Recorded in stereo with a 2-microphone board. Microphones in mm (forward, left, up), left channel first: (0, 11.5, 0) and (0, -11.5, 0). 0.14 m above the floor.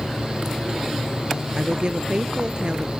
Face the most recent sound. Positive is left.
turn(degrees=-35)  # may be behind; listen again after turning